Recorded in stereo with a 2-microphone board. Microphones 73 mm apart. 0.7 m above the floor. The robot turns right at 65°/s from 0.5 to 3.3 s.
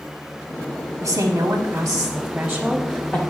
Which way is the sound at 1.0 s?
95° right.